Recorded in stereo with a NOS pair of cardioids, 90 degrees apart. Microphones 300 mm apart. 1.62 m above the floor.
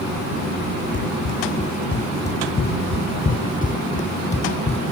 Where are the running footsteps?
40° left; by 4.8 s 20° left.